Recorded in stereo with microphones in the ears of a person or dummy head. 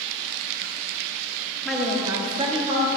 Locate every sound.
1.6 s a woman speaking: 5° left (ahead or behind), 1.1 m; by 2.9 s 40° right (ahead or behind), 1.9 m